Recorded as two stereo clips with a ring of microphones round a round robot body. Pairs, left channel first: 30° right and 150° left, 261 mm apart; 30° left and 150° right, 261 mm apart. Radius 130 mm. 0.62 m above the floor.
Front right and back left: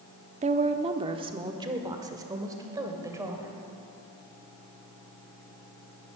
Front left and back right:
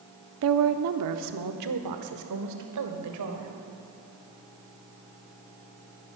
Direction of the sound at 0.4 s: 150° right.